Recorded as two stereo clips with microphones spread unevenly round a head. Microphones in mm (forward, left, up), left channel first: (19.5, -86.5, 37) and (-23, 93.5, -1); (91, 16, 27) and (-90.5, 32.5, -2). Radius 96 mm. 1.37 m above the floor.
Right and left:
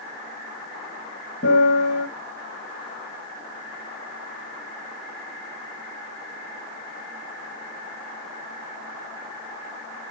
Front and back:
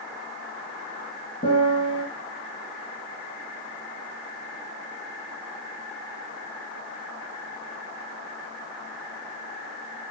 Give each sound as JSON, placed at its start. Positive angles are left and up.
{"t": 1.4, "sound": "a piano", "azimuth_deg": -50, "distance_m": 3.5}